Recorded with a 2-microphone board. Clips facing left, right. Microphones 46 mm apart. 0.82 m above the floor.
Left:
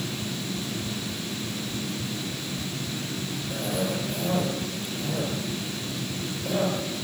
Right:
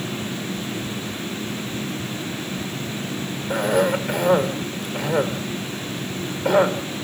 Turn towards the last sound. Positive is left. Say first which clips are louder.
# right 10 dB
turn(degrees=-75)  # may be behind; listen again after turning